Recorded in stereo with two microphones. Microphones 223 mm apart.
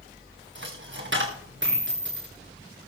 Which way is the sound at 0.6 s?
60° right (ahead or behind).